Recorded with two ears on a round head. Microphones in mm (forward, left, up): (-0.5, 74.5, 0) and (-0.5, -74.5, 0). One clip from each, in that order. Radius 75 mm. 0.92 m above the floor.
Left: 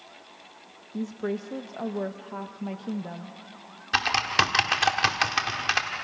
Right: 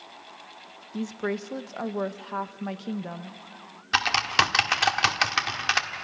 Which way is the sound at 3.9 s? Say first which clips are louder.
Right 1 dB; 20° right (ahead or behind).